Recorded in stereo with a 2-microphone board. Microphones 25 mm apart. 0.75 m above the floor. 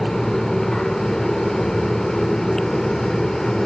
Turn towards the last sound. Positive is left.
No sound to turn to.